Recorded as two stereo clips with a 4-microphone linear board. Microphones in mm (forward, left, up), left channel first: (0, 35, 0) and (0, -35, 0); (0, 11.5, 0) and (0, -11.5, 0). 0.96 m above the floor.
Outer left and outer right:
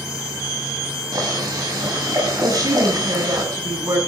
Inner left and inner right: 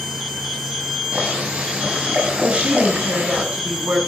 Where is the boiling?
65° right (ahead or behind), 10 m.